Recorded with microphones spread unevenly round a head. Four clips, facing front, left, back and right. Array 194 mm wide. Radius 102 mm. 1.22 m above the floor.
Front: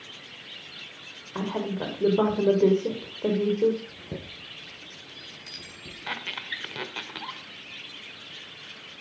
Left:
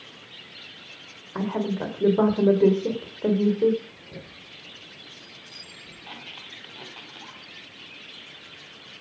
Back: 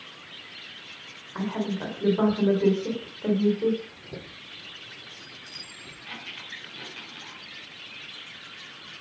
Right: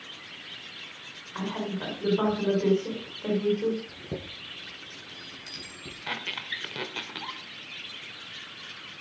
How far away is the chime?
About 7.5 m.